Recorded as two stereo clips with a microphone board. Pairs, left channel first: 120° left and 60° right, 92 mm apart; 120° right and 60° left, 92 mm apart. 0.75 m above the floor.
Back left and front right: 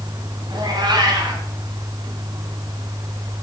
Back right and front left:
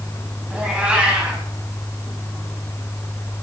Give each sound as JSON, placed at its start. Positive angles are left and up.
{"t": 0.5, "sound": "a cat meowing", "azimuth_deg": -20, "distance_m": 2.5}